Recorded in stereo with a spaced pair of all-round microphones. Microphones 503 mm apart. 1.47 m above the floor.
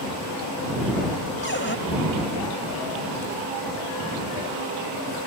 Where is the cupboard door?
20° left (ahead or behind).